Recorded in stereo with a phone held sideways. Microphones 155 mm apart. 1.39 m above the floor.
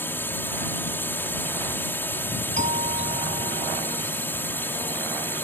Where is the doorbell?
50° right (ahead or behind).